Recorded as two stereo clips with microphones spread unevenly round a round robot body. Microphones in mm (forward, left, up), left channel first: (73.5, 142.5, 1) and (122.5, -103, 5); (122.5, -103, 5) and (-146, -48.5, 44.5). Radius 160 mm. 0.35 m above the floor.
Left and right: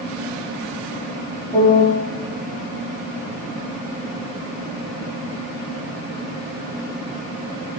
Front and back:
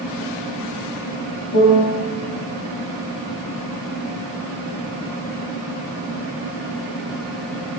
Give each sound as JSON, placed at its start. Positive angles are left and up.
{"t": 1.5, "sound": "a piano", "azimuth_deg": 30, "distance_m": 0.8}